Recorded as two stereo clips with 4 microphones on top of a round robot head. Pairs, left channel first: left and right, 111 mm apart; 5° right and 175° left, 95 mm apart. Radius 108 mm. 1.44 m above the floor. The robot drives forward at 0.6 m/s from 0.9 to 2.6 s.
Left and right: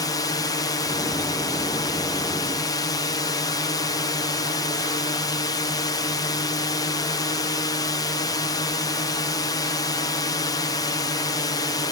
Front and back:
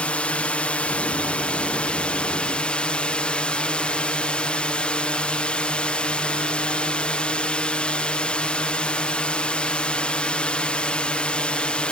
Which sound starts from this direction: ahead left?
A drone, at 0.0 s.